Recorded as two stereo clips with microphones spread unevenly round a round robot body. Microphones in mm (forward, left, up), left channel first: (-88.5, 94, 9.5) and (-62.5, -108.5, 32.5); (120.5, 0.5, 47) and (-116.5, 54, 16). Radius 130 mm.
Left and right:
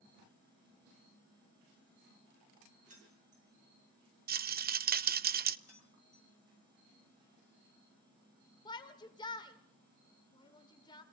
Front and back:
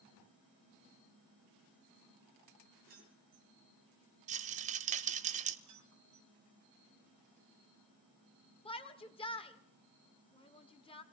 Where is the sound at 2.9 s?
135° right, 6 m.